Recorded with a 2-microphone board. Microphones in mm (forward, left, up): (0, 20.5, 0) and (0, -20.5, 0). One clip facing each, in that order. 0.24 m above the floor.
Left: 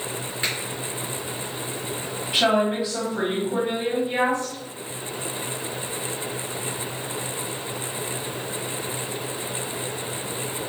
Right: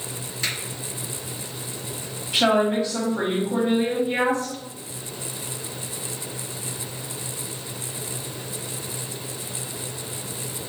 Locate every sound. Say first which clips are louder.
0.4 s a finger snap: left 1 dB; 25° left (ahead or behind), 2 m
2.3 s a woman speaking: right 1 dB; 15° left (ahead or behind), 1.4 m